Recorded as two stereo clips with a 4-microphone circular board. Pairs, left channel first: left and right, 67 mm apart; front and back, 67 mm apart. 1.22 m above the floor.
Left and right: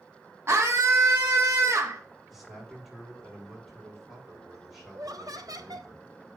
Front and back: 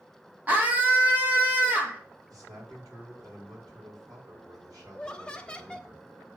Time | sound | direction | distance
0.5 | a scream | 130° right | 0.8 m
2.3 | a man speaking | 175° right | 4 m
4.9 | laughter | 75° right | 1.0 m